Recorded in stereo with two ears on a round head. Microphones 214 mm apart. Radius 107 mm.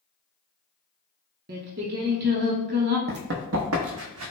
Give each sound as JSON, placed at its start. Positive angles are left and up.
{"t": 1.5, "sound": "singing", "side_deg": -40, "distance_m": 0.7}
{"t": 3.1, "sound": "running footsteps", "side_deg": -40, "distance_m": 0.8}